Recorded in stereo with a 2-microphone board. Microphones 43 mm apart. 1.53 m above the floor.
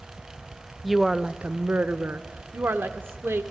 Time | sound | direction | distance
0.8 | a woman speaking | centre (ahead or behind) | 0.7 m